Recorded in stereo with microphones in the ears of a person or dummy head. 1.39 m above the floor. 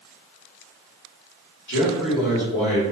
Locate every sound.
1.7 s a man speaking: 70° left (ahead or behind), 1.1 m